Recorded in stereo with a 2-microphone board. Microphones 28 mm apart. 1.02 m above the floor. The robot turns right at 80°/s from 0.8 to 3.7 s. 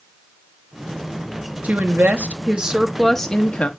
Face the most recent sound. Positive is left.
turn(degrees=60)